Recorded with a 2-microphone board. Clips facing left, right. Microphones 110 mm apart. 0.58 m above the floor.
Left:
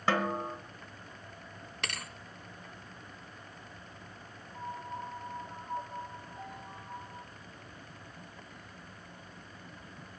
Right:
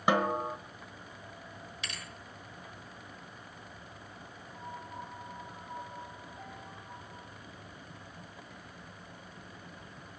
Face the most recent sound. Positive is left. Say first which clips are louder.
# left 4 dB
turn(degrees=20)  # may be behind; listen again after turning